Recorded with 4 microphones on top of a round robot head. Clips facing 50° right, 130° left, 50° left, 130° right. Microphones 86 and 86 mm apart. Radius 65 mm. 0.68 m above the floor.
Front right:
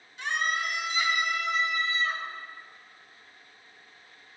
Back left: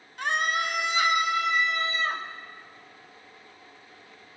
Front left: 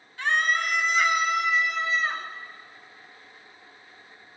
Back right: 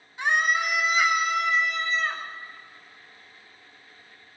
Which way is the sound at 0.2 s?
160° left.